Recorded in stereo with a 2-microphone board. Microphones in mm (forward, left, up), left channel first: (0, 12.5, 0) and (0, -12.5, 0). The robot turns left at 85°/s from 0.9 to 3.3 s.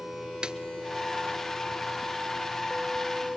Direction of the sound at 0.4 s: 35° right (ahead or behind).